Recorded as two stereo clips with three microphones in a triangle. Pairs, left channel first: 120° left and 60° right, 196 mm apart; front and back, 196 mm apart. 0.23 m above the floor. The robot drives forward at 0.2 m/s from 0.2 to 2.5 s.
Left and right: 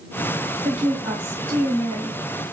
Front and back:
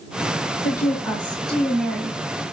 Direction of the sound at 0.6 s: 65° right.